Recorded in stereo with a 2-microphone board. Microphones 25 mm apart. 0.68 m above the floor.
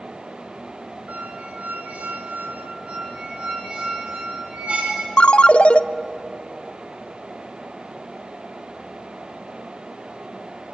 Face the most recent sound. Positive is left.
turn(degrees=50)  # may be behind; listen again after turning